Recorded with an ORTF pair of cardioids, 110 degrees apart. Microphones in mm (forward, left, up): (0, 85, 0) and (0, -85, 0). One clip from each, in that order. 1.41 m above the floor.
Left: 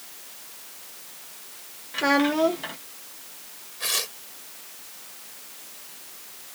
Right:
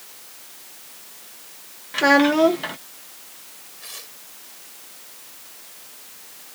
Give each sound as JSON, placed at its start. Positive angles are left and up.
{"t": 1.9, "sound": "a child speaking", "azimuth_deg": -25}
{"t": 3.8, "sound": "tearing paper", "azimuth_deg": 70}